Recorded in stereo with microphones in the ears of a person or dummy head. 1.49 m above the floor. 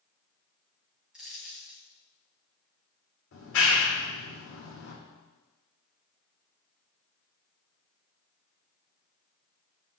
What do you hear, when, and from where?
1.1 s a dropped coin: centre (ahead or behind), 3 m
3.3 s a clap: 90° left, 4.5 m